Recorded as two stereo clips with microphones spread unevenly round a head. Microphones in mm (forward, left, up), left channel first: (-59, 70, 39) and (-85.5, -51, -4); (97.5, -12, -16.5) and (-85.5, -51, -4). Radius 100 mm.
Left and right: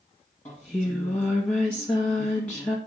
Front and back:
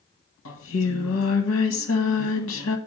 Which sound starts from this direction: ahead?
Singing, at 0.5 s.